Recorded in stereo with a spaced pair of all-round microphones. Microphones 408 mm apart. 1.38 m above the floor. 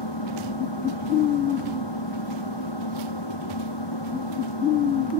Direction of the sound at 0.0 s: 80° left.